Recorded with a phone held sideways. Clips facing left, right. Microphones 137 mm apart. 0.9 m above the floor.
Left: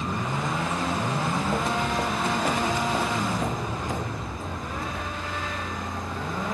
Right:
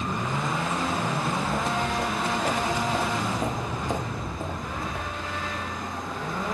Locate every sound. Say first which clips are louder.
1.1 s footsteps: left 1 dB; 40° left (ahead or behind), 2 m; by 5.5 s 60° right (ahead or behind), 1.7 m